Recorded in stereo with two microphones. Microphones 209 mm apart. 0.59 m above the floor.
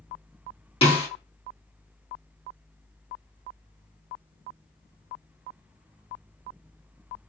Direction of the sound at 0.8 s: 25° left (ahead or behind).